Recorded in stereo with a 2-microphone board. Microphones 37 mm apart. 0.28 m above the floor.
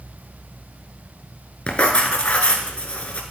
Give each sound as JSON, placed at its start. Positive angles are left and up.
{"t": 1.7, "sound": "writing", "side_deg": 30, "distance_m": 1.1}